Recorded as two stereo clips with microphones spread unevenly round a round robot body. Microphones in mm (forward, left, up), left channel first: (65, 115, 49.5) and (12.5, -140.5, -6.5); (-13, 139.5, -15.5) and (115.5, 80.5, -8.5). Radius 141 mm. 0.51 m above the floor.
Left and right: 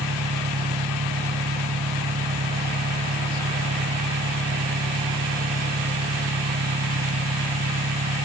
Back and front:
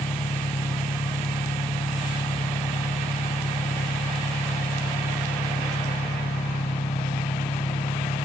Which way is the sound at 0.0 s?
150° right.